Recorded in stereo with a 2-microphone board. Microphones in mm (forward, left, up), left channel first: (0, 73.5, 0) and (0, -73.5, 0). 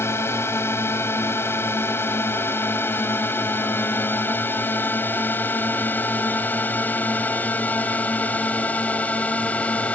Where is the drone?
15° left (ahead or behind); by 9.9 s 10° left (ahead or behind).